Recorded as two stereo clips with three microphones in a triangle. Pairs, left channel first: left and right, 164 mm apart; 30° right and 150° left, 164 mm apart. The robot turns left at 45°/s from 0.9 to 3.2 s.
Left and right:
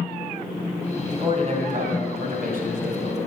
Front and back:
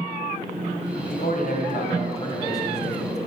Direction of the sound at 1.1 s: 30° right.